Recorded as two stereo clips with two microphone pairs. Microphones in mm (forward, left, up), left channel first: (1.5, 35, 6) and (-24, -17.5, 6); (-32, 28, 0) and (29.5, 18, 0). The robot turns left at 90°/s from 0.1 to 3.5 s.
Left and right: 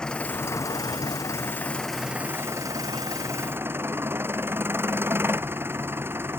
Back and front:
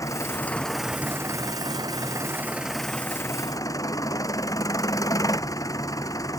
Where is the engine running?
140° left; by 6.4 s 165° right.